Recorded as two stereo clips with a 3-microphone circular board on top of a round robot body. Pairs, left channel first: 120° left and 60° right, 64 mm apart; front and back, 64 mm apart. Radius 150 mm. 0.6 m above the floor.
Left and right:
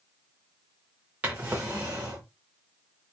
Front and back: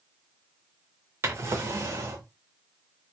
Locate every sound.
1.2 s a drawer: 130° right, 0.5 m